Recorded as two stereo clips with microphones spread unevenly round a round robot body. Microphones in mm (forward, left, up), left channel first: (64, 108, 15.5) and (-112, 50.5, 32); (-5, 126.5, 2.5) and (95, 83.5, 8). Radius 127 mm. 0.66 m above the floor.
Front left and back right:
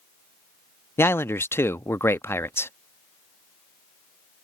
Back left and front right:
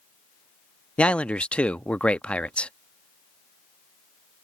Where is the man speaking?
85° left.